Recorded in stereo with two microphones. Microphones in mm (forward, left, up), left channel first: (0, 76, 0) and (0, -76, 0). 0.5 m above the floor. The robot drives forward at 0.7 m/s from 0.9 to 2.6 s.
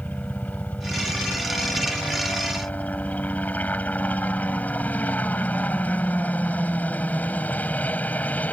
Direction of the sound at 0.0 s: 10° left (ahead or behind).